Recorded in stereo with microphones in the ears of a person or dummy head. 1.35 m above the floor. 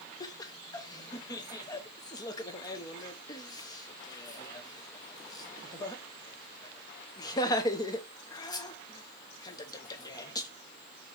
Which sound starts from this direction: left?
Laughter, at 0.2 s.